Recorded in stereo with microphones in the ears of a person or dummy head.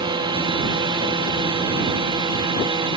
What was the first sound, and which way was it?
A drone, 25° right (ahead or behind).